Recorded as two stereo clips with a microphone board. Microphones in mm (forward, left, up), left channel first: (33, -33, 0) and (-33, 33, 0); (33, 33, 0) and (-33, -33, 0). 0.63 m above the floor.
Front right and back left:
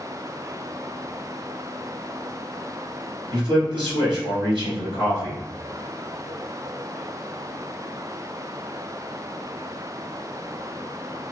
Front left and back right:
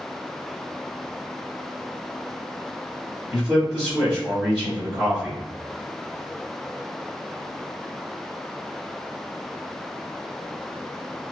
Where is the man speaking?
140° left, 1.9 m.